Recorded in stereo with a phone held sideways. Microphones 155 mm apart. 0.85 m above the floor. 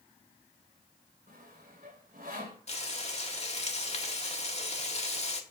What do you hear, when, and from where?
1.3 s sawing: 70° right (ahead or behind), 3 m
2.7 s frying: 45° left (ahead or behind), 1.8 m